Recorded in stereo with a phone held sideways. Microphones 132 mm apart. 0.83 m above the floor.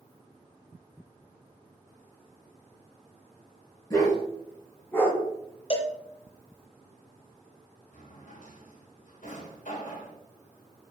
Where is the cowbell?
45° left (ahead or behind), 0.6 m.